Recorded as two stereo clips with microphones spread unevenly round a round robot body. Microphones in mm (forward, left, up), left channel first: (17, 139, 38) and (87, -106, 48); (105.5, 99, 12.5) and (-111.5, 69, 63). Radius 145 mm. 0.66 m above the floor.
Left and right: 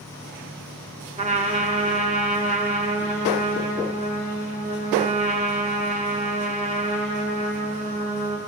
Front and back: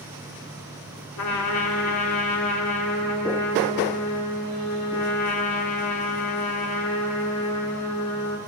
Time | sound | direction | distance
1.2 | a trumpet | 15° right | 1.2 m